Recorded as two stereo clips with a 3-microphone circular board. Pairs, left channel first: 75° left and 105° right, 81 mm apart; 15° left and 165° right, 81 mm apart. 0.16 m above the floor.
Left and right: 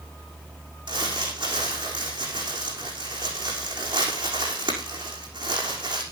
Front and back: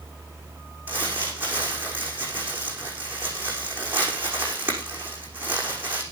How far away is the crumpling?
About 6 m.